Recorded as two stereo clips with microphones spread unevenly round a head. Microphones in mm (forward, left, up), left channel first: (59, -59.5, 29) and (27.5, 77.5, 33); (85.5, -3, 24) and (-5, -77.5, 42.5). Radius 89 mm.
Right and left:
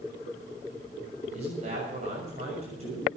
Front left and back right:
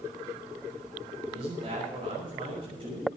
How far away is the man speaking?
About 6.5 m.